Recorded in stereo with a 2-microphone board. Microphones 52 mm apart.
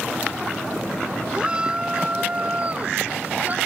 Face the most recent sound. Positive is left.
turn(degrees=-35)  # may be behind; listen again after turning